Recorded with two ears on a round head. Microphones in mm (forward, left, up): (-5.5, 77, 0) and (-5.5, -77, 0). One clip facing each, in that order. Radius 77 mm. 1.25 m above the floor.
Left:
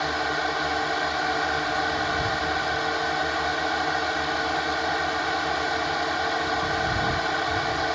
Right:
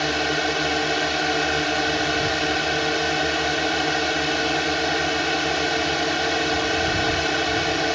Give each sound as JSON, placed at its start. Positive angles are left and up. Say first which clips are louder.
{"t": 0.0, "sound": "a drone", "louder": "right 3 dB", "side_deg": -30}